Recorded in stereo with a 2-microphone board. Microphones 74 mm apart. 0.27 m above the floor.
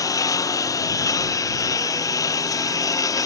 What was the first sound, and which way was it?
A lawn mower, 50° left (ahead or behind).